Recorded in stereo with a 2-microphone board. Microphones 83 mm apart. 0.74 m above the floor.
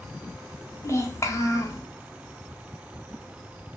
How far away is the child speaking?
About 0.8 m.